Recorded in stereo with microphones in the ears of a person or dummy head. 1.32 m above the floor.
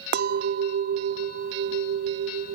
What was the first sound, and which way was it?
A clink, 65° right (ahead or behind).